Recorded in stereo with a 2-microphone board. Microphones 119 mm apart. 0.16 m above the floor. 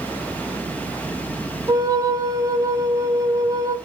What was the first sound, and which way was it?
A flute, 30° right (ahead or behind).